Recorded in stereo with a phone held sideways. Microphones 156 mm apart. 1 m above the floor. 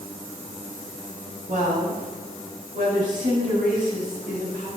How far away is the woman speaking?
About 5 m.